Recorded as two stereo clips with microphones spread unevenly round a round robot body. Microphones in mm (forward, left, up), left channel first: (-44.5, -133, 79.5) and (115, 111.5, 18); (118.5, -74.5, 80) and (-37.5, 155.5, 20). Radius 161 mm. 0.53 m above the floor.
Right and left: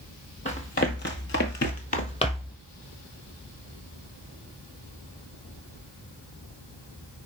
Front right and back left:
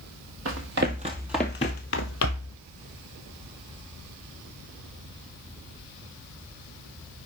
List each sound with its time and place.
0.5 s running footsteps: 175° left, 1.0 m; by 2.6 s 55° right, 1.1 m